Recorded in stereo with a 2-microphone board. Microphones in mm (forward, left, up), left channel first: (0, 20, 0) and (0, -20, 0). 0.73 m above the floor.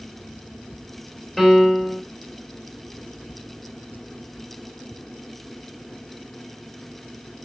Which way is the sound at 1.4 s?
5° left (ahead or behind).